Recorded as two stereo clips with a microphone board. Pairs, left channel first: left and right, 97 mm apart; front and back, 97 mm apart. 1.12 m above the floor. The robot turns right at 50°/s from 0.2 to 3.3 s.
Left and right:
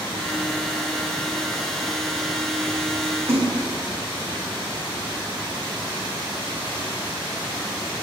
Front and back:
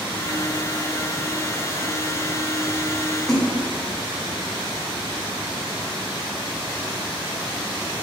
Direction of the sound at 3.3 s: 85° right.